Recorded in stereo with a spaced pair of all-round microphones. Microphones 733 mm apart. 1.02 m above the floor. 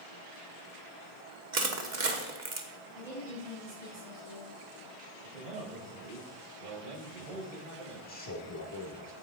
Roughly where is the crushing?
Right.